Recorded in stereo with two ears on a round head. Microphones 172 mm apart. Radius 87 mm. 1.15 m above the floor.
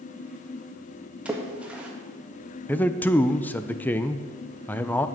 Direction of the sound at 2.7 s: 10° left (ahead or behind).